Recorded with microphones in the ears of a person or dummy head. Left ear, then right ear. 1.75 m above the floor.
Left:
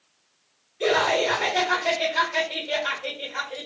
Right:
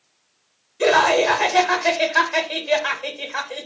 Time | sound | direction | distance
0.8 | laughter | 45° right (ahead or behind) | 0.8 m